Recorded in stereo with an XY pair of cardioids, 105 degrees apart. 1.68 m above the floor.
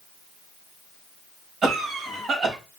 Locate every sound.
1.6 s a cough: 65° right, 3.5 m